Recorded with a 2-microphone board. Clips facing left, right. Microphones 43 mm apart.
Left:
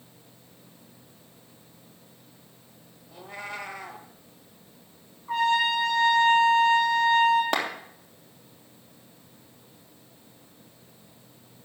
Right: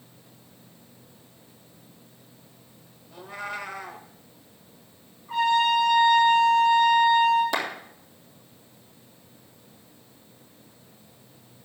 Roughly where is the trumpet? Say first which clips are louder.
Right 2 dB; left.